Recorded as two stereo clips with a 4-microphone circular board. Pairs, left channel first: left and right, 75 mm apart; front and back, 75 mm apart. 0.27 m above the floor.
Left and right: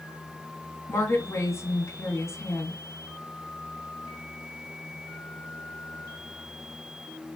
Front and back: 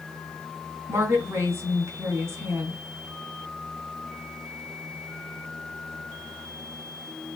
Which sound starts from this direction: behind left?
A woman speaking, at 0.9 s.